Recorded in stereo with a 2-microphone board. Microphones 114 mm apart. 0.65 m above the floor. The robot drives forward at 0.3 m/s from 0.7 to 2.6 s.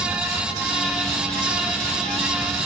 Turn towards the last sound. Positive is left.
No sound to turn to.